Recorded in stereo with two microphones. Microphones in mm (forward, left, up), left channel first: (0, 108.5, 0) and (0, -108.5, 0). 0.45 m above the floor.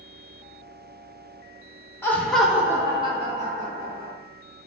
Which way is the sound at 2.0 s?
10° left (ahead or behind).